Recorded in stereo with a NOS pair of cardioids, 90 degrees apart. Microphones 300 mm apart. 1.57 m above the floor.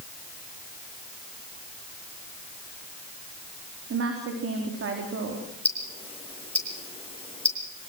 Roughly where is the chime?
I don't hear a chime.